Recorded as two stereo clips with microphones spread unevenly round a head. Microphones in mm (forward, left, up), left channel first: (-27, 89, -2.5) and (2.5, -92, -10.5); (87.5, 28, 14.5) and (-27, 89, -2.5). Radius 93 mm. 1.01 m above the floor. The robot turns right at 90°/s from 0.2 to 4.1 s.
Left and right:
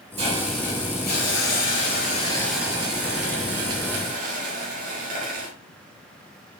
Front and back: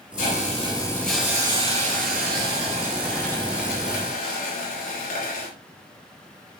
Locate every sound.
0.2 s a hiss: 20° right, 4 m; by 5.5 s 30° right, 4 m